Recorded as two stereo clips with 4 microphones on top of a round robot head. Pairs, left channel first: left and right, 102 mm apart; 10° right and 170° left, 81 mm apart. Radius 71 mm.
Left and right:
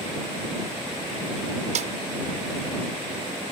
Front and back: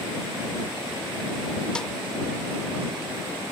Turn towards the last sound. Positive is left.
turn(degrees=-95)